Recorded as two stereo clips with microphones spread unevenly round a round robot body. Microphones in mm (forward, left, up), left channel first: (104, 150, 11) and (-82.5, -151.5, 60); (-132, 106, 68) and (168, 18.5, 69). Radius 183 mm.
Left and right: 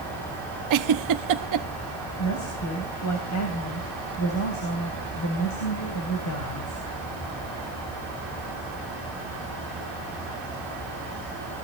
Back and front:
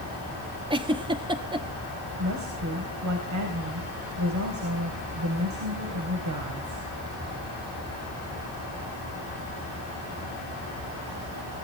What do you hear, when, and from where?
0.7 s a giggle: 90° right, 1.0 m
2.2 s a woman speaking: 15° left, 3.5 m